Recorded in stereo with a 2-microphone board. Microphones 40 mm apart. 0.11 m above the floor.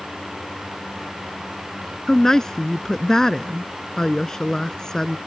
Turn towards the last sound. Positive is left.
turn(degrees=15)  # may be behind; listen again after turning